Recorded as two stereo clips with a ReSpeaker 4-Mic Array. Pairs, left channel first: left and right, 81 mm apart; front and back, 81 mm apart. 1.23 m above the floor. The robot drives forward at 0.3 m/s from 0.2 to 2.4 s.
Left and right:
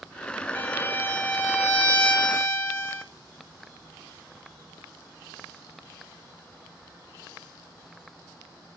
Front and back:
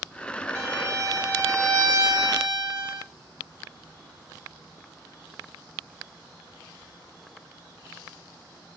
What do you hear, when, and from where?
0.6 s a violin: 150° left, 1.4 m; by 3.0 s 160° left, 1.8 m